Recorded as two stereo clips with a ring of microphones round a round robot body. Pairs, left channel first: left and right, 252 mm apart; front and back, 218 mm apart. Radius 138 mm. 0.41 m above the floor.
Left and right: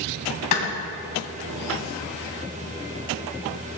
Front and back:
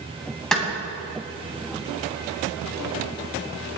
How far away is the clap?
About 2.5 m.